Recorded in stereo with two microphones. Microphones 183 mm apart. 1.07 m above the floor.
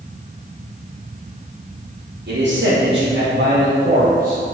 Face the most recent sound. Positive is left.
turn(degrees=-40)  # may be behind; listen again after turning